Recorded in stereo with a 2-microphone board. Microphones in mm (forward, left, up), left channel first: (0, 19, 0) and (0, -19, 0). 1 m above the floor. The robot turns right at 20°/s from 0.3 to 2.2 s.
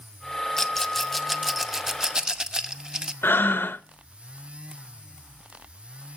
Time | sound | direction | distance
0.6 | a rattle | 15° left (ahead or behind) | 0.6 m
3.2 | breathing | 75° left (ahead or behind) | 0.5 m